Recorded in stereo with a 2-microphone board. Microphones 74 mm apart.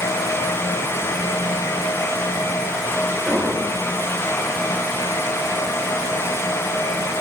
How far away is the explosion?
About 9.5 m.